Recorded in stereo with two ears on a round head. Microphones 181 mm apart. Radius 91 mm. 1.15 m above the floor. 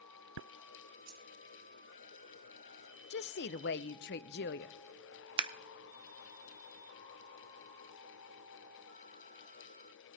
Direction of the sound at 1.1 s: 85° right.